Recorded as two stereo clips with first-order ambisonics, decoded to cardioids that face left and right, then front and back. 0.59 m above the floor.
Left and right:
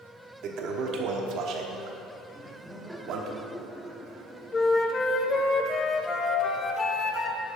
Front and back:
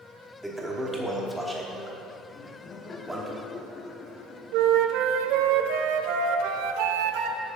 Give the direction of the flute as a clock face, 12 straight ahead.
7 o'clock.